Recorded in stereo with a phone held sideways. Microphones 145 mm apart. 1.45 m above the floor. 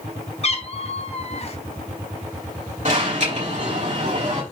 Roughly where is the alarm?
Right.